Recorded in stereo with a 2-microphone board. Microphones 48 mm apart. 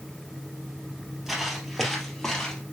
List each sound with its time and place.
1.3 s footsteps: 5° right (ahead or behind), 2.5 m; by 2.6 s 15° left (ahead or behind), 2.5 m